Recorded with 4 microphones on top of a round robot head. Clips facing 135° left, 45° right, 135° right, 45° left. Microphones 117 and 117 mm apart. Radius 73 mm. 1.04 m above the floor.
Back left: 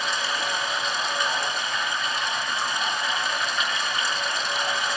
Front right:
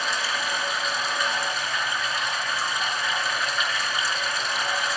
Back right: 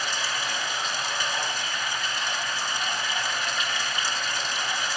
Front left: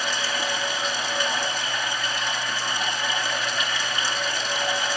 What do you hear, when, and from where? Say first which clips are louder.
0.0 s running water: even, front left 3 dB; 45° left, 9 m